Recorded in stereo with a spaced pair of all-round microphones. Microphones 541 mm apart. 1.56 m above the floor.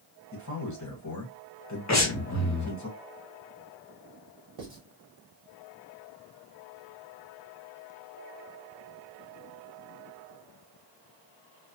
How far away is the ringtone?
I don't hear a ringtone.